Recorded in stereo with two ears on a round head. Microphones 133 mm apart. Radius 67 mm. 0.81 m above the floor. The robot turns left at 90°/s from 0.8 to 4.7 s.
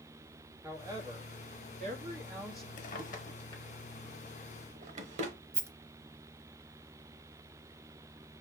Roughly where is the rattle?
Centre.